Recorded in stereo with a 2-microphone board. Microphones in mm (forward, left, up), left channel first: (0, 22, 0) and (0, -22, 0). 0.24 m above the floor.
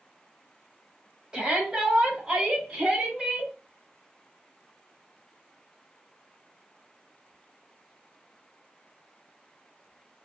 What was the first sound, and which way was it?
A shout, 25° right (ahead or behind).